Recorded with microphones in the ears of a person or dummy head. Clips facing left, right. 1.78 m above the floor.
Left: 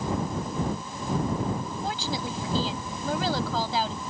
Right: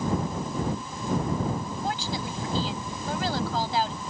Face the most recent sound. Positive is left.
turn(degrees=85)